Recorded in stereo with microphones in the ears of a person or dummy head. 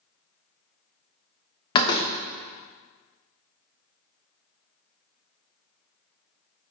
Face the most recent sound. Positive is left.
turn(degrees=25)  # may be behind; listen again after turning